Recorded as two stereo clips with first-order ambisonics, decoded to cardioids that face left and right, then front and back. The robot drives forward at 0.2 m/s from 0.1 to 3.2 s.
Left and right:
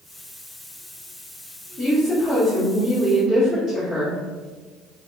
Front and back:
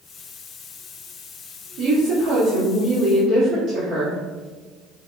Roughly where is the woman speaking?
Behind left.